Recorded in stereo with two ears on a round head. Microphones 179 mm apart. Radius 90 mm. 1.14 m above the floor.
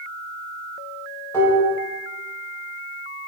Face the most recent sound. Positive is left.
turn(degrees=15)  # may be behind; listen again after turning